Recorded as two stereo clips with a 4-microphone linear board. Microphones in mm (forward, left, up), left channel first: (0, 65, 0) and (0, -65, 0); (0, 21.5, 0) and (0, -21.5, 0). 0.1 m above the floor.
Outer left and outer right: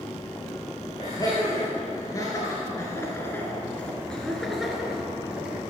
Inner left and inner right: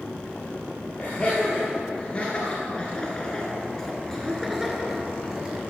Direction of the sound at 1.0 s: 30° left (ahead or behind).